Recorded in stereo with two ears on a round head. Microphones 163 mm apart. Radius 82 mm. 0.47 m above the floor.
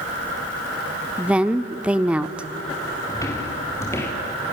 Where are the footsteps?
15° left (ahead or behind), 3.5 m.